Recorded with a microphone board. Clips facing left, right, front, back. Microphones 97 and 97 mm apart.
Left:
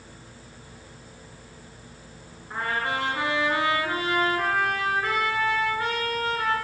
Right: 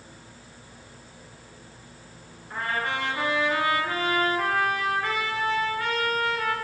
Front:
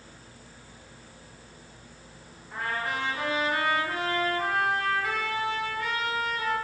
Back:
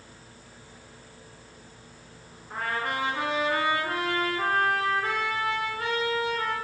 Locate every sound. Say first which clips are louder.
2.5 s a trumpet: left 1 dB, back 1 dB; 150° left, 2 m